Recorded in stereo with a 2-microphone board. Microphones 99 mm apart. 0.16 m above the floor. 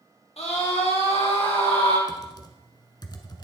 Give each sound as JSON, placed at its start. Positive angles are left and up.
{"t": 0.4, "sound": "a scream", "side_deg": 75, "distance_m": 4.0}
{"t": 2.1, "sound": "typing on a keyboard", "side_deg": 40, "distance_m": 1.1}